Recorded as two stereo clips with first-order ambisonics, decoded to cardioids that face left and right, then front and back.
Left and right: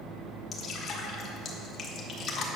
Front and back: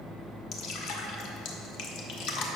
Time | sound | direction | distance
0.5 | dripping | 30° left | 1.5 m